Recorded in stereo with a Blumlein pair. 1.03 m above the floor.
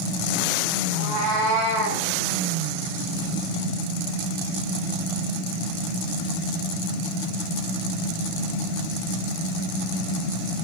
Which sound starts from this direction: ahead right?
A cat meowing, at 0.9 s.